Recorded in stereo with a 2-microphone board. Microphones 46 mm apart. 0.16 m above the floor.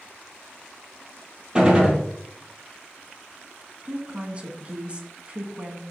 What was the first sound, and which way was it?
A gunshot, 20° right (ahead or behind).